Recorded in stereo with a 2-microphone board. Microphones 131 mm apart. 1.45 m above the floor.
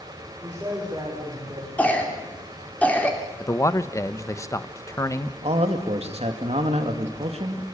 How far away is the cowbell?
No cowbell in this recording.